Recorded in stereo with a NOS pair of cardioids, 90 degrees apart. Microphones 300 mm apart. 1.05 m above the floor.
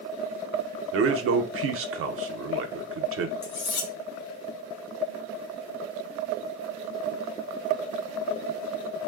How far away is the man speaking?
About 0.5 m.